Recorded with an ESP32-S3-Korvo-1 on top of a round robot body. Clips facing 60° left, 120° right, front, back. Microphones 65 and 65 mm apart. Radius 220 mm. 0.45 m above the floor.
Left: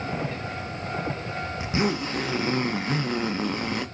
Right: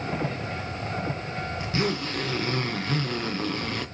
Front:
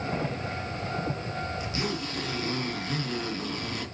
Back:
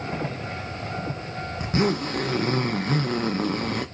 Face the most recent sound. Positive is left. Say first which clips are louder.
# left 2 dB, back 8 dB
turn(degrees=135)